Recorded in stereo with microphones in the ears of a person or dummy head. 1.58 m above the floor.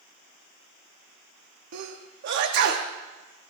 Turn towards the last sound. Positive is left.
turn(degrees=-60)  # may be behind; listen again after turning